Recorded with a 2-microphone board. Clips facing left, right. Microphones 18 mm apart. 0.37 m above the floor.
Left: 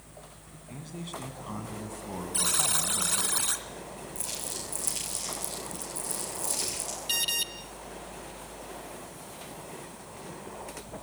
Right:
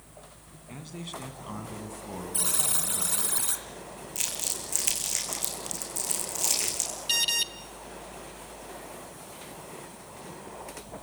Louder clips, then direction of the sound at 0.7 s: Even; 15° right (ahead or behind).